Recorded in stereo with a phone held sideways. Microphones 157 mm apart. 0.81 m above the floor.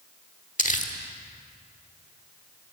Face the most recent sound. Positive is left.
turn(degrees=55)  # may be behind; listen again after turning